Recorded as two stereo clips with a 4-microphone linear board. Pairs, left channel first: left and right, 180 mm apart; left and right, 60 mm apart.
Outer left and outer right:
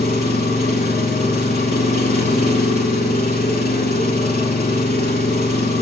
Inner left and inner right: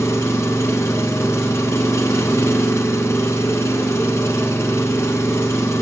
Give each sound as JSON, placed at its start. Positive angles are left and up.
{"t": 0.0, "sound": "an engine running", "side_deg": 60, "distance_m": 0.8}